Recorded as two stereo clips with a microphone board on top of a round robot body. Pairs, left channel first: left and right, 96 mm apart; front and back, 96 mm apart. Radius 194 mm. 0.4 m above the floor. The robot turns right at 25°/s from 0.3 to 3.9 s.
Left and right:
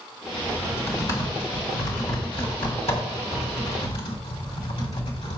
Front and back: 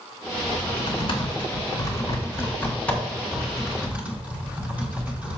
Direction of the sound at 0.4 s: 15° left.